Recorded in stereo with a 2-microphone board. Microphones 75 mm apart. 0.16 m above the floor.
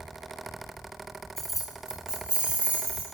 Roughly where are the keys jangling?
Centre.